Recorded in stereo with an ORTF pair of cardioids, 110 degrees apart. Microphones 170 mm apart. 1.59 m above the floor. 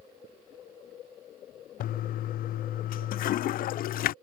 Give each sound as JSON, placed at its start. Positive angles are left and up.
{"t": 1.8, "sound": "a toilet flushing", "azimuth_deg": 60}